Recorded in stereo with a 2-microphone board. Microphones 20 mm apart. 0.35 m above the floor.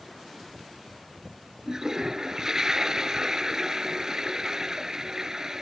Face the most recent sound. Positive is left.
turn(degrees=-30)  # may be behind; listen again after turning